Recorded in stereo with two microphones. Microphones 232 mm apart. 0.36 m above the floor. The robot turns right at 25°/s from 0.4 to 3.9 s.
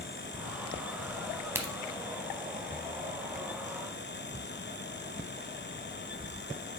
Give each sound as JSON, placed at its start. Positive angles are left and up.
{"t": 1.6, "sound": "a crack", "side_deg": -10, "distance_m": 1.0}